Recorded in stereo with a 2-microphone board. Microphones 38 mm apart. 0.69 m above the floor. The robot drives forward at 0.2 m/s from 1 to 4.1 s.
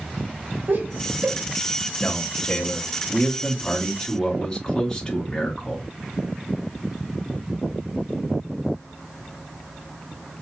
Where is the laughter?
75° right (ahead or behind), 1.6 m.